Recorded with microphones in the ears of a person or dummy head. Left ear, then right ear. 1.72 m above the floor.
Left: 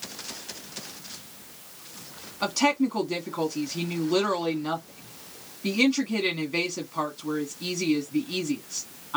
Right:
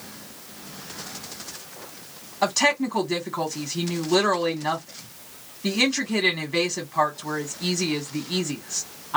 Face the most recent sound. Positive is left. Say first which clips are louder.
# right 3 dB
turn(degrees=-15)  # may be behind; listen again after turning